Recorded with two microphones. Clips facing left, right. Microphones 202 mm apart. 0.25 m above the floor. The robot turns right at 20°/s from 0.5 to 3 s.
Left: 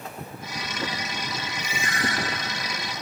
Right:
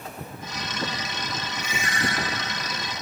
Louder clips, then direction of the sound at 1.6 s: Even; 75° right (ahead or behind).